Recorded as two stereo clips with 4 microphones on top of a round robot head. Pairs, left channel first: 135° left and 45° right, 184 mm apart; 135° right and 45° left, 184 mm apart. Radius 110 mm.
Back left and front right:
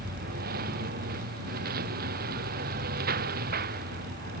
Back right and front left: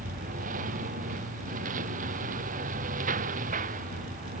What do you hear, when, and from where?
0.0 s a lawn mower: 5° right